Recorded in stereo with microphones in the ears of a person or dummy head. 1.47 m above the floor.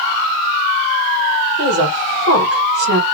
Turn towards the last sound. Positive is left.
turn(degrees=-60)  # may be behind; listen again after turning